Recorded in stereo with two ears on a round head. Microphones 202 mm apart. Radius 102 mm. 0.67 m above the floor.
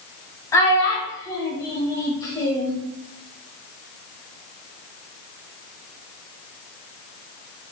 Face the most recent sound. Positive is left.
turn(degrees=15)  # may be behind; listen again after turning